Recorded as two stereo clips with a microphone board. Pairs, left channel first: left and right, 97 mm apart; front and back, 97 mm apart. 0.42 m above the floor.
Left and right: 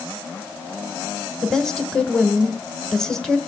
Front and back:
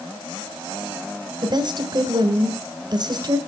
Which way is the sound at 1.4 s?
175° left.